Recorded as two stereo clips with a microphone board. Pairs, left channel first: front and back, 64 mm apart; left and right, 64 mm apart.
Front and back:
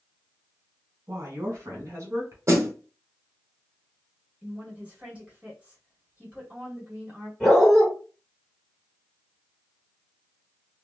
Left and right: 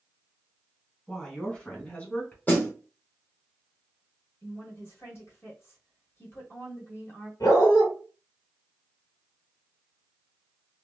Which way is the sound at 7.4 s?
90° left.